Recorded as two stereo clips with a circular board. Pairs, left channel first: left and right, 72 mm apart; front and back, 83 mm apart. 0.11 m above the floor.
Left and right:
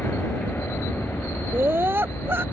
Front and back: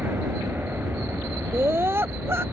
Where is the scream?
130° right.